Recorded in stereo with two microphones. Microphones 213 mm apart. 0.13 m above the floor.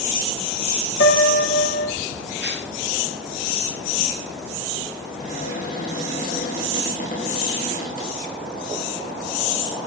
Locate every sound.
1.0 s a piano: 65° left (ahead or behind), 4.5 m
2.4 s tearing paper: 55° right (ahead or behind), 4 m
5.1 s a cupboard door: 40° left (ahead or behind), 9 m